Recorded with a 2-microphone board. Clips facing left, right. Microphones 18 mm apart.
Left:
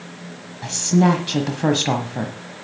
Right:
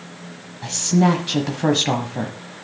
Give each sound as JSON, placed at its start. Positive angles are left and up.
{"t": 0.6, "sound": "a woman speaking", "side_deg": 5, "distance_m": 1.2}